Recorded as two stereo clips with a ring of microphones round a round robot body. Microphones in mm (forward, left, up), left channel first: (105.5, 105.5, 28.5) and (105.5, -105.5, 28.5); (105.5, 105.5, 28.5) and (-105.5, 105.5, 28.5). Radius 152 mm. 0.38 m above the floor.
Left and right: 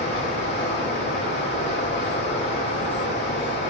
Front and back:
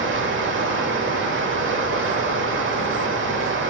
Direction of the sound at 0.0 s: 150° left.